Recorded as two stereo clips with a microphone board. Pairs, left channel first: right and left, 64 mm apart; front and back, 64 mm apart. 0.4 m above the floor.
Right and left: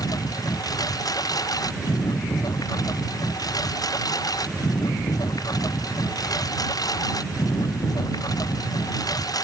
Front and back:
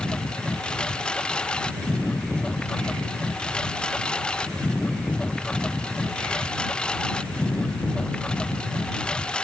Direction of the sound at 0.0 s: 75° right.